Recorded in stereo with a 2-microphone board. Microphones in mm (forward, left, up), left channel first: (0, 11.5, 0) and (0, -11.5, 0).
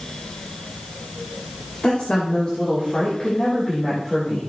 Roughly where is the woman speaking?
Left.